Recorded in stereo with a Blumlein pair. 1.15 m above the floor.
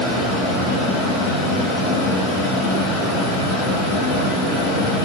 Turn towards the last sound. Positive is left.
turn(degrees=15)